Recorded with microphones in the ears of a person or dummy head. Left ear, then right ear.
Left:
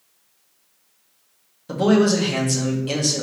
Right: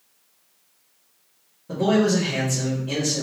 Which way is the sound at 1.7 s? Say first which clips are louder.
Left 3 dB; 75° left (ahead or behind).